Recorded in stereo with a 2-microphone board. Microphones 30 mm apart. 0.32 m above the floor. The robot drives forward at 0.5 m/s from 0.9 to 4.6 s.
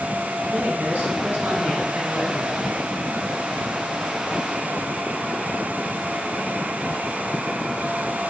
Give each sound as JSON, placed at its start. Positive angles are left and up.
{"t": 0.5, "sound": "a man speaking", "side_deg": -65, "distance_m": 3.5}